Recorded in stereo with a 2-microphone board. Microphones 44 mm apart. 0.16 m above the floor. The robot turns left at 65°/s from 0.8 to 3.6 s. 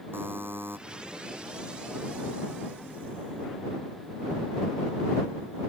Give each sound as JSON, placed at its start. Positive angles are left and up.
{"t": 0.1, "sound": "a buzzer", "side_deg": -60}